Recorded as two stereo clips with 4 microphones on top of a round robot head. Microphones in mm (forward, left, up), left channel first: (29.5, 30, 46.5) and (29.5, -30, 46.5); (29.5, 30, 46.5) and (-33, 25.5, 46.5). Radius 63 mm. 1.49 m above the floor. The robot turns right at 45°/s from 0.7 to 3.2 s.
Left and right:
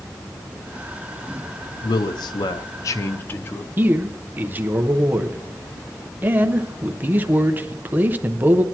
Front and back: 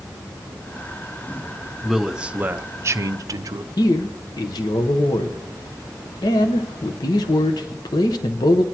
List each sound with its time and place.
1.8 s a man speaking: 95° left, 0.6 m; by 3.7 s 155° left, 0.6 m
3.8 s a man speaking: 30° right, 1.0 m